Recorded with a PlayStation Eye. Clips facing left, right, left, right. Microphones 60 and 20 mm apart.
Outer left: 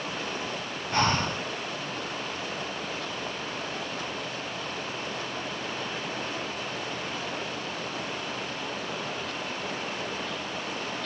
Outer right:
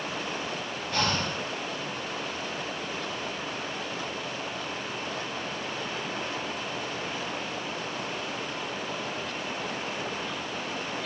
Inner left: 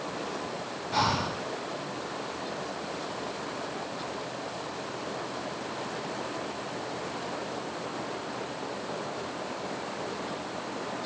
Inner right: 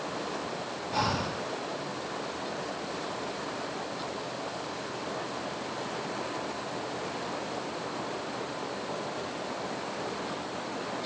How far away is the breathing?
About 0.9 m.